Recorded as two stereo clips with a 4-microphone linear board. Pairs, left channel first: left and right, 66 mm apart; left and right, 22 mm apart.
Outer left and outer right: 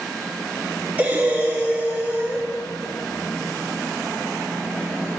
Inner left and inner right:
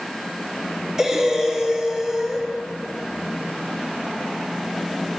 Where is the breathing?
25° right (ahead or behind), 1.1 m.